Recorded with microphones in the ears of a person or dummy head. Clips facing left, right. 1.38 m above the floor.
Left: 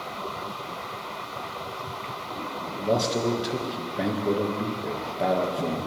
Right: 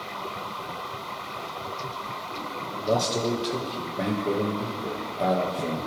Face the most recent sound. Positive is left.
turn(degrees=10)  # may be behind; listen again after turning